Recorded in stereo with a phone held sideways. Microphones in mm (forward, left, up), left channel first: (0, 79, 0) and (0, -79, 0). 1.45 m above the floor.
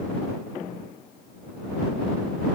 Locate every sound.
Only background noise.